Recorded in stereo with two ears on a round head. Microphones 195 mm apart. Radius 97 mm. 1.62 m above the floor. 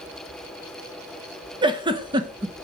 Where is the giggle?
20° right (ahead or behind), 0.9 m.